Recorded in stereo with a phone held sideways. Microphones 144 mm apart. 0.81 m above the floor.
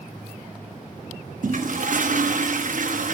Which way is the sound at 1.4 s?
65° right (ahead or behind).